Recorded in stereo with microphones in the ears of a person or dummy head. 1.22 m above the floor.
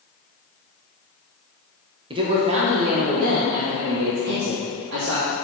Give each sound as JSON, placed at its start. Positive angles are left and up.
{"t": 2.1, "sound": "a man speaking", "side_deg": -20, "distance_m": 0.9}